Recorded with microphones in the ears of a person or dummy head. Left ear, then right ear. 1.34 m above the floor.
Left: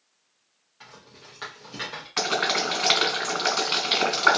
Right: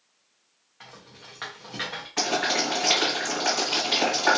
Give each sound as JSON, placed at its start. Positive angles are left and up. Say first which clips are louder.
{"t": 0.8, "sound": "a rattle", "louder": "right 1 dB", "side_deg": -5, "distance_m": 0.7}
{"t": 2.2, "sound": "boiling", "louder": "left 1 dB", "side_deg": 40, "distance_m": 1.6}